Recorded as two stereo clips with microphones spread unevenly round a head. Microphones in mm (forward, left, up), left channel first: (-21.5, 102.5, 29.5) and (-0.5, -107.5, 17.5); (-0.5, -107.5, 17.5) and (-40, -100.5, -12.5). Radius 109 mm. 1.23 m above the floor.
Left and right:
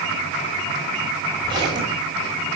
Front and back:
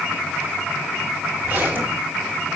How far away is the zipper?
About 6 m.